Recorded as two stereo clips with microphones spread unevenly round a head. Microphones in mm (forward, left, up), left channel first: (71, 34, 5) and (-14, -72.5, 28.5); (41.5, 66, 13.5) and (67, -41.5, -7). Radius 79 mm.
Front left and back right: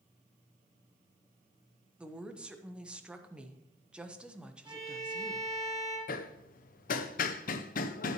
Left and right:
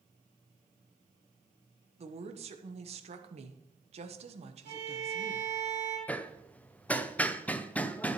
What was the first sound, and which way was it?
A woman speaking, 50° right.